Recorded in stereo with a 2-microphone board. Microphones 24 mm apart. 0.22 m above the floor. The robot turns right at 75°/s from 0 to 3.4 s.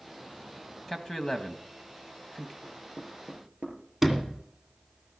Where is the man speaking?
15° left (ahead or behind), 1.2 m; by 2.5 s 10° left (ahead or behind), 1.2 m.